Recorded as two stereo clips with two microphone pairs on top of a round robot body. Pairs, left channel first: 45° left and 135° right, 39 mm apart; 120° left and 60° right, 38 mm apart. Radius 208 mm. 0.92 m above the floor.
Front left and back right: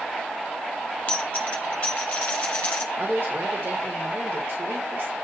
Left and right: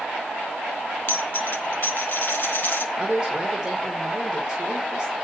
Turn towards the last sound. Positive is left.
turn(degrees=-130)